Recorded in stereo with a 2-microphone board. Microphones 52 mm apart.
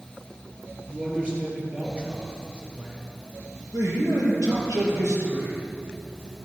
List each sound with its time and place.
0.9 s a man speaking: 25° right (ahead or behind), 5.5 m
3.7 s a man speaking: 80° right, 5.5 m